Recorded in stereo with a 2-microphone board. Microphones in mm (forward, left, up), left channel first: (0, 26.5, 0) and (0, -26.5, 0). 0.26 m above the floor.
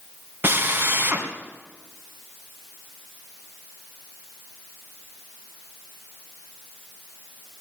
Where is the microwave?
I don't hear a microwave.